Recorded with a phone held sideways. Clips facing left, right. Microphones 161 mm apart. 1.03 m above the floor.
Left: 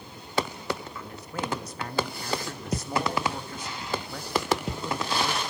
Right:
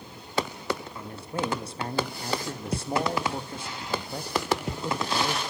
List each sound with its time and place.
0.9 s a man speaking: 30° right (ahead or behind), 1.4 m